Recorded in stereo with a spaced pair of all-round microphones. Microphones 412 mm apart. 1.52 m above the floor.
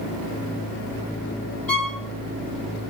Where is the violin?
55° left (ahead or behind), 2 m.